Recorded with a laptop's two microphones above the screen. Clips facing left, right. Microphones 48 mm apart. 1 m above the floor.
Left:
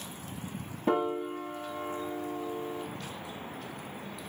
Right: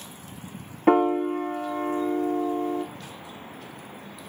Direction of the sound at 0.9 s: 70° right (ahead or behind).